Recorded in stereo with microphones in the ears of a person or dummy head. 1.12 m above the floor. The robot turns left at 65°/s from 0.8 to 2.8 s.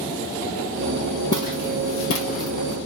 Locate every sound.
1.3 s footsteps: 20° left (ahead or behind), 2.5 m; by 2.8 s 25° left (ahead or behind), 2.5 m